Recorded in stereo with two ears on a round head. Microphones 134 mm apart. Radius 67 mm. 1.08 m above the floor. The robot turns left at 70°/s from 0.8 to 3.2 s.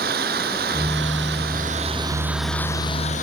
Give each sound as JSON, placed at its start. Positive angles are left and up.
{"t": 0.0, "sound": "an engine running", "azimuth_deg": -65}